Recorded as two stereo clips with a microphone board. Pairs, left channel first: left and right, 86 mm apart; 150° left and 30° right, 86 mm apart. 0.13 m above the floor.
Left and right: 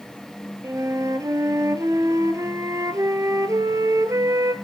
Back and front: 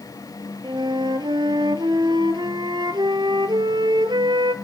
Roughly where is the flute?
Ahead right.